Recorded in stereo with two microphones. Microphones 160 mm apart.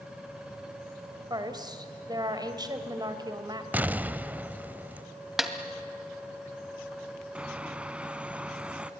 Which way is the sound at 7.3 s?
5° right (ahead or behind).